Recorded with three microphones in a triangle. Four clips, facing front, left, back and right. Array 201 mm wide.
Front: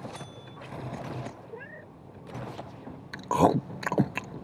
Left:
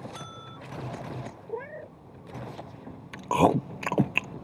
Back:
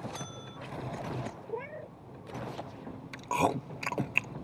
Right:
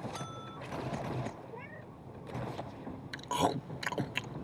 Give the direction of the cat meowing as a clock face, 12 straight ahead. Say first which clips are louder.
Left 10 dB, back 5 dB; 8 o'clock.